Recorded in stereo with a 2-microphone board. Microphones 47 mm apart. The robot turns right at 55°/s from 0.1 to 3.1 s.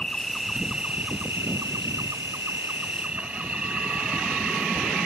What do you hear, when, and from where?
0.0 s an insect: 165° left; by 5.1 s 30° right